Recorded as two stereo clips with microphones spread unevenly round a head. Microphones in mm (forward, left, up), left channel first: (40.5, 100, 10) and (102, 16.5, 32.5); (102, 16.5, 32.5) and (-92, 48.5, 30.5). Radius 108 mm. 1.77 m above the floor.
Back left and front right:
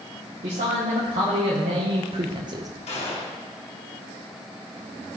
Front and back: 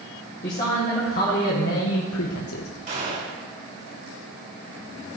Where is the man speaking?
65° right, 2 m; by 2.7 s 5° right, 0.7 m.